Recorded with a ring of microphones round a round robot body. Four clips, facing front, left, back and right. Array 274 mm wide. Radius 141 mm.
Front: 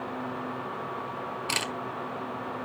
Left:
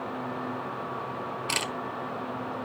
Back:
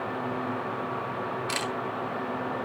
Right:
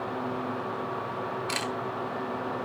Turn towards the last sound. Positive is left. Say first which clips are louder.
# right 1 dB, back 2 dB
turn(degrees=45)